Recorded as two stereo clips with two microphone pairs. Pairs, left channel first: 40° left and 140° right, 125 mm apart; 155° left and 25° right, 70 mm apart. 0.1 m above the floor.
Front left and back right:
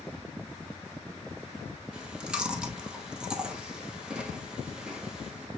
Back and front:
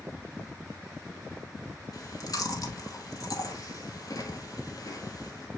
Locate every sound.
1.9 s chewing: 140° left, 1.6 m